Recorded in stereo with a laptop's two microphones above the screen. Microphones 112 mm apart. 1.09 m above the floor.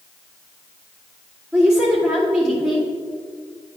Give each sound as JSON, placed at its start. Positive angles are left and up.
{"t": 1.5, "sound": "a woman speaking", "side_deg": -15, "distance_m": 2.0}